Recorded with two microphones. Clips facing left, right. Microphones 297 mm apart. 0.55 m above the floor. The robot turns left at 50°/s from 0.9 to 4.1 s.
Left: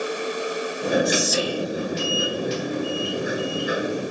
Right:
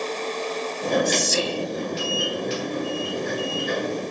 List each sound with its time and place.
1.1 s whispering: 105° right, 0.7 m; by 1.7 s 135° right, 0.7 m